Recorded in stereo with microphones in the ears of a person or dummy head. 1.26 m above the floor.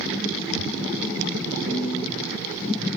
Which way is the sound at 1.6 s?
40° right (ahead or behind).